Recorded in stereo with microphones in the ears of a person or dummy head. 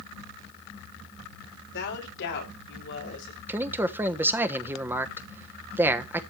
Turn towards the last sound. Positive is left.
turn(degrees=-15)  # may be behind; listen again after turning